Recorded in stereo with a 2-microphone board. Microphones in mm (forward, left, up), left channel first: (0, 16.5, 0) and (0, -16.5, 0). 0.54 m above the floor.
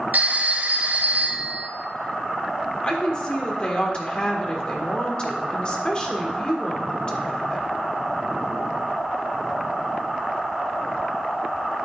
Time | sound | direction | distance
0.1 | a phone ringing | 70° right (ahead or behind) | 1.4 m
2.8 | a woman speaking | 30° left (ahead or behind) | 1.8 m